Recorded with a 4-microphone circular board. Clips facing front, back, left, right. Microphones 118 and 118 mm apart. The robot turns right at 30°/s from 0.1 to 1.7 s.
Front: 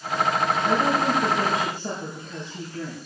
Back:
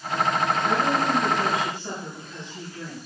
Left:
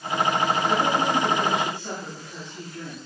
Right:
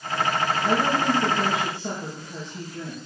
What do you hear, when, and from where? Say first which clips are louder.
0.6 s a woman speaking: front 1 dB, even; 65° right, 4.5 m; by 3.0 s 30° right, 4.5 m